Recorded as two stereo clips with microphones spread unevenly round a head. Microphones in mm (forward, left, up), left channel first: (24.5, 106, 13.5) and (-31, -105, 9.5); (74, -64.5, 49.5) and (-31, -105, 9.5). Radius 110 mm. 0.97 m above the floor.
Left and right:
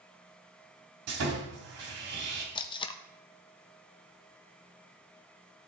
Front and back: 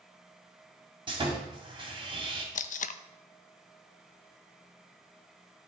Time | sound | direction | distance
1.1 | sawing | 120° right | 3 m
2.5 | tape being pulled | 5° left | 0.6 m